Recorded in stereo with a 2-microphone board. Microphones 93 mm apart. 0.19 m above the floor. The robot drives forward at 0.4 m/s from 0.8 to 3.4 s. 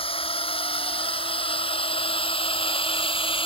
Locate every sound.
0.0 s a drone: 80° left; by 3.5 s 70° left (ahead or behind)